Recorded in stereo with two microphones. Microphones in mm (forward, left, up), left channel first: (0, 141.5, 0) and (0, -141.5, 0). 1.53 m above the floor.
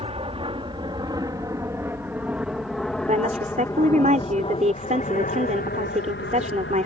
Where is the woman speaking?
25° right (ahead or behind).